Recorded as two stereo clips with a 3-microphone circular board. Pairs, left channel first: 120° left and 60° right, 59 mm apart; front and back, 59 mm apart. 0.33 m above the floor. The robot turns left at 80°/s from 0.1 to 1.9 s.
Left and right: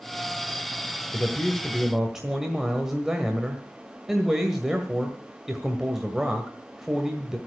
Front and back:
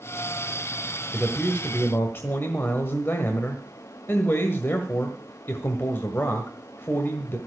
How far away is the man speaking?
About 1.7 m.